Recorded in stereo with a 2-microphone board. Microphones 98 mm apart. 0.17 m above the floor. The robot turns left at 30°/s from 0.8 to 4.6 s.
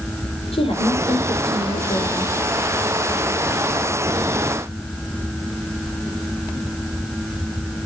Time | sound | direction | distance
0.5 | a woman speaking | 90° left | 5 m